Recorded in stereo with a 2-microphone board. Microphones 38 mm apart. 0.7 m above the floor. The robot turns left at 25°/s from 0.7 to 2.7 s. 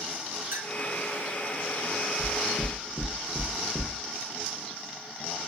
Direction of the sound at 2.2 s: 5° left (ahead or behind).